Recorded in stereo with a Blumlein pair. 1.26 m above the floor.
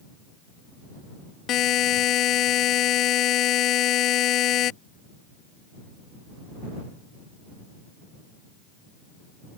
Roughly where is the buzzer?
Ahead left.